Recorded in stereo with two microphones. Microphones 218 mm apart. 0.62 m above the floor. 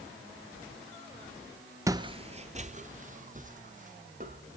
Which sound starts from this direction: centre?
Footsteps, at 1.9 s.